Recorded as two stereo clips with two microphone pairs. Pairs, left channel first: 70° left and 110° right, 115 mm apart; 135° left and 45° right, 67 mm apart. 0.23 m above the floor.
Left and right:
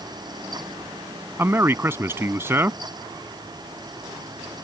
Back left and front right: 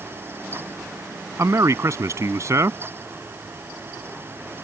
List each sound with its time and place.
1.4 s a man speaking: 50° right